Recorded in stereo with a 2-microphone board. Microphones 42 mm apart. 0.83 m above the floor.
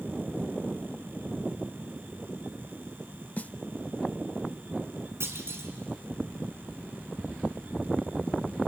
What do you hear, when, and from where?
3.4 s a snare drum: 35° left (ahead or behind), 0.6 m
5.2 s a clunk: 80° right, 2.5 m